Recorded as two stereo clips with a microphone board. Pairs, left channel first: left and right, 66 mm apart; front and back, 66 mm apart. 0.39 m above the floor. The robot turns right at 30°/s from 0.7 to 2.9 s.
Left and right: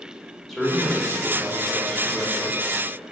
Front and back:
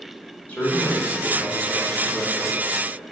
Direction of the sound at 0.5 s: 5° left.